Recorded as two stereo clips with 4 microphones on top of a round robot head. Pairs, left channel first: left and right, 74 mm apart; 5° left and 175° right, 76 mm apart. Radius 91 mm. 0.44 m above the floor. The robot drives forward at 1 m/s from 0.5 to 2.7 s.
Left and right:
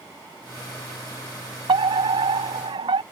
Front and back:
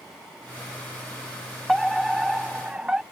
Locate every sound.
1.7 s a fire alarm: 85° right; by 3.0 s 95° right